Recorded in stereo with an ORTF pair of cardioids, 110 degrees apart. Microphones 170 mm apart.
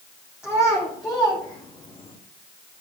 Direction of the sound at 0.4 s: 5° right.